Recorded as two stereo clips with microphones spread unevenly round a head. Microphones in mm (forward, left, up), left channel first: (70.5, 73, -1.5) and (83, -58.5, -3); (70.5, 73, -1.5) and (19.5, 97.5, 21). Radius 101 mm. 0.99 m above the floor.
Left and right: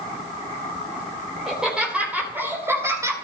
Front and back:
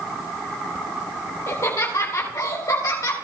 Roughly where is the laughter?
Ahead.